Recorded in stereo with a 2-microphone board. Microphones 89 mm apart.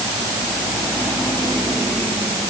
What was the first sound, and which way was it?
Only background noise.